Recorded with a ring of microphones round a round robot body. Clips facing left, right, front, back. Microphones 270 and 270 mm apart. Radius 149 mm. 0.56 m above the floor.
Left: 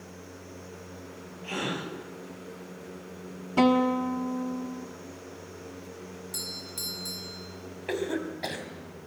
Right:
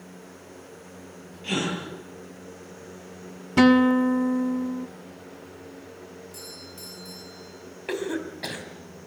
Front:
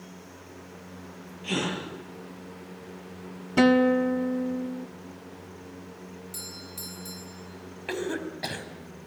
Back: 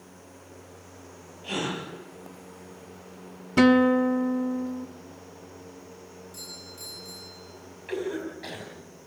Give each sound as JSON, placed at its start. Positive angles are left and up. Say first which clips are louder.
{"t": 1.4, "sound": "a gasp", "louder": "right 5 dB, front 1 dB", "azimuth_deg": -55, "distance_m": 8.5}
{"t": 3.6, "sound": "a guitar", "louder": "right 6 dB, back 1 dB", "azimuth_deg": -105, "distance_m": 1.3}
{"t": 6.3, "sound": "a doorbell", "louder": "left 1 dB, front 2 dB", "azimuth_deg": 60, "distance_m": 6.0}
{"t": 7.9, "sound": "a cough", "louder": "right 1 dB, back 1 dB", "azimuth_deg": -20, "distance_m": 4.5}